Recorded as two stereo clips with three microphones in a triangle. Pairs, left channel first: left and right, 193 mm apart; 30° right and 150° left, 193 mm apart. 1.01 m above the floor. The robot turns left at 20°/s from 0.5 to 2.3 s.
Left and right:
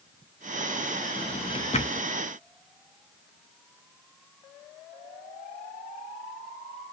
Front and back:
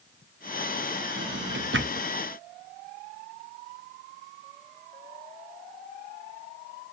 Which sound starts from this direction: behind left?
A drawer, at 1.2 s.